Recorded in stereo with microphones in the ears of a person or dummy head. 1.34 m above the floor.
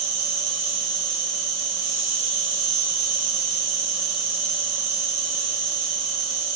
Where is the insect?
50° right (ahead or behind), 1.7 m.